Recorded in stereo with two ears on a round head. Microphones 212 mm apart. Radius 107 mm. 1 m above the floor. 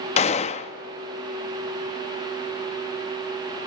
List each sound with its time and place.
0.2 s a gunshot: 30° left (ahead or behind), 0.6 m